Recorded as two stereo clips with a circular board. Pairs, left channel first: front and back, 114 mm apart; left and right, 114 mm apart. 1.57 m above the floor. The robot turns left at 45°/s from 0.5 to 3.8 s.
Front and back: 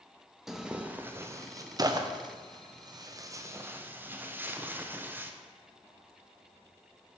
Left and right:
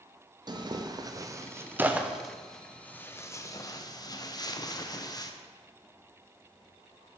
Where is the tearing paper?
95° right, 0.5 m; by 5.3 s 120° left, 0.5 m.